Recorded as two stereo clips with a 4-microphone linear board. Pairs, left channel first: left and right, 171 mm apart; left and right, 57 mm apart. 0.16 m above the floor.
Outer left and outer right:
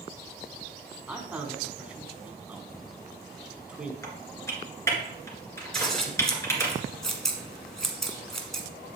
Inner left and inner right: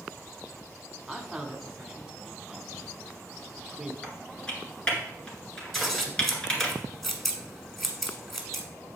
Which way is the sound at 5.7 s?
5° left (ahead or behind).